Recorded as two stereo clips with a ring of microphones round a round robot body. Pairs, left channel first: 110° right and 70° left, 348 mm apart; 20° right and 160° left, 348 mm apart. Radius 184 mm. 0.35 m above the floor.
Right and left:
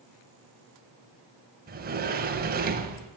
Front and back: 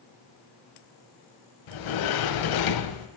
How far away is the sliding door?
About 1.2 m.